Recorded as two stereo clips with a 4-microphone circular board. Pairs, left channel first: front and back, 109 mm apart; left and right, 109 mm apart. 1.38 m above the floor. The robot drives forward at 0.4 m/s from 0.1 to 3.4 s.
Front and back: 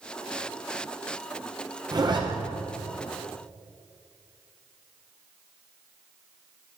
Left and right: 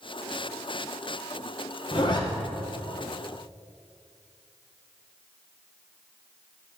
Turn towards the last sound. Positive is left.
turn(degrees=150)